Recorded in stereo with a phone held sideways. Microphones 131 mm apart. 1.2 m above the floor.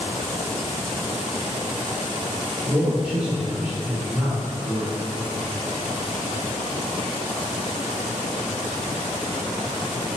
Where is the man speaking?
10° right (ahead or behind), 0.8 m.